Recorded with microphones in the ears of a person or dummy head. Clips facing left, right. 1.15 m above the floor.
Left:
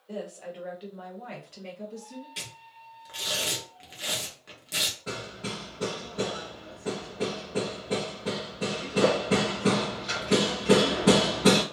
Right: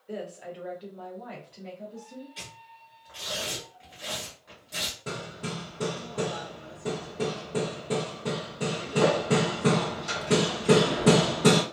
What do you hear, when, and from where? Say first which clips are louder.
0.1 s a woman speaking: even; 20° right (ahead or behind), 0.9 m; by 2.3 s 70° left (ahead or behind), 1.3 m
2.4 s tearing paper: left 1 dB; 40° left (ahead or behind), 0.8 m
5.1 s hammering: right 1 dB; 45° right (ahead or behind), 1.1 m